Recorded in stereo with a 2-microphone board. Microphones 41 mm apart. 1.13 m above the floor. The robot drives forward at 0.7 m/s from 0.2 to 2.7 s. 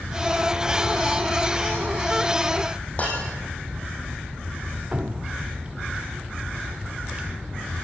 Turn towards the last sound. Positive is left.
turn(degrees=-30)  # may be behind; listen again after turning